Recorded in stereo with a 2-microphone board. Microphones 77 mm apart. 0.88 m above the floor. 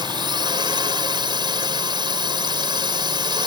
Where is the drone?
75° right (ahead or behind).